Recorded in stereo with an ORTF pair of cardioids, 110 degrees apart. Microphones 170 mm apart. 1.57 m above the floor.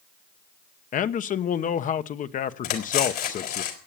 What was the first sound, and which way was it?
A man speaking, 50° left.